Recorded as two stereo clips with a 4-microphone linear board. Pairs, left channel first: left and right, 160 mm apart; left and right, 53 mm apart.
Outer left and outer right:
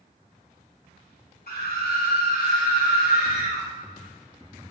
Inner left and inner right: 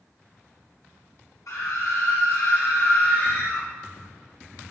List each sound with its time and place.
1.5 s a scream: 80° left, 4 m; by 3.6 s 50° left (ahead or behind), 5.5 m